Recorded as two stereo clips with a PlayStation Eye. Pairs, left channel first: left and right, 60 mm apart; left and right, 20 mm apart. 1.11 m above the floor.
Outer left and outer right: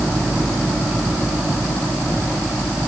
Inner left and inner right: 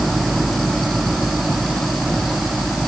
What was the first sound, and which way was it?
Only background noise.